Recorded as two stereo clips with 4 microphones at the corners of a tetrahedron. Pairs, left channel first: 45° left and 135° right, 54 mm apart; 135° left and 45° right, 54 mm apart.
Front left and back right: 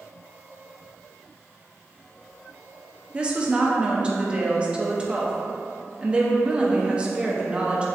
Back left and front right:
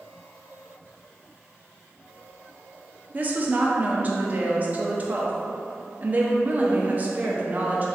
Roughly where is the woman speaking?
Right.